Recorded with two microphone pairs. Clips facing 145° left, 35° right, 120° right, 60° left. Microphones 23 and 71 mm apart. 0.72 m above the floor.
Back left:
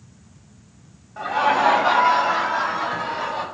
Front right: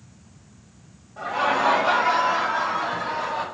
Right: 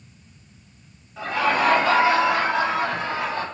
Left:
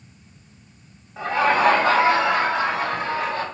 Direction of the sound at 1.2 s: 115° left.